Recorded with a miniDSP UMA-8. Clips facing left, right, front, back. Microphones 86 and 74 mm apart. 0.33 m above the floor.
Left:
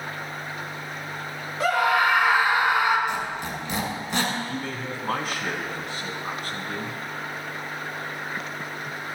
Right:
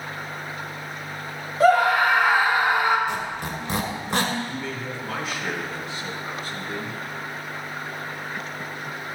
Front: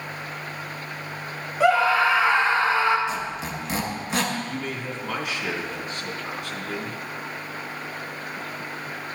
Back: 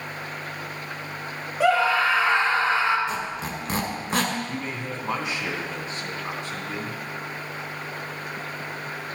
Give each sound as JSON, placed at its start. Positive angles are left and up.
{"t": 1.6, "sound": "a scream", "azimuth_deg": -110, "distance_m": 1.6}
{"t": 3.1, "sound": "a squeak", "azimuth_deg": -135, "distance_m": 1.9}
{"t": 4.5, "sound": "a man speaking", "azimuth_deg": 130, "distance_m": 2.5}